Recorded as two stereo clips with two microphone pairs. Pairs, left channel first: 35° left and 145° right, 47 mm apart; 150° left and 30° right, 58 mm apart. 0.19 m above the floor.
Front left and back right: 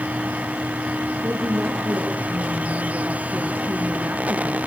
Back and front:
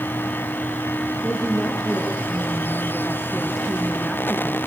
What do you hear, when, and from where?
1.2 s a woman speaking: 115° right, 3.5 m; by 4.6 s 125° right, 1.8 m